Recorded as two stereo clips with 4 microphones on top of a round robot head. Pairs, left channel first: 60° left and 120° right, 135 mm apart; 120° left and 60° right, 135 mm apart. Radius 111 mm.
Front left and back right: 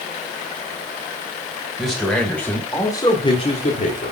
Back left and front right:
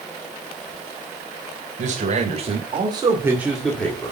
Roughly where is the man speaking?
Ahead right.